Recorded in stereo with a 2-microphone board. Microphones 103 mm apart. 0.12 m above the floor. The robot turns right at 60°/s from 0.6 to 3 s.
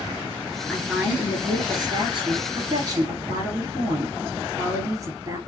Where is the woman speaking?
175° left, 2 m; by 5.4 s 45° right, 2 m.